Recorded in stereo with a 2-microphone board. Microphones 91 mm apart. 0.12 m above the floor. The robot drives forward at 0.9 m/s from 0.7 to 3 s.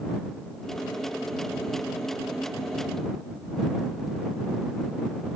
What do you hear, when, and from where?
Only background noise.